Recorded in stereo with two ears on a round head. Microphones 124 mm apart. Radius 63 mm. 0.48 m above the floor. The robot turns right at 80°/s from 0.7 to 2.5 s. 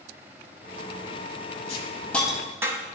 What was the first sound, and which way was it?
A hiss, 45° left (ahead or behind).